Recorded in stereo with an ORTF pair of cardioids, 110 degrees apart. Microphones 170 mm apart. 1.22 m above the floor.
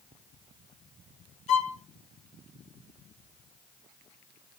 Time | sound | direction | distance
1.5 | a violin | 45° left | 1.1 m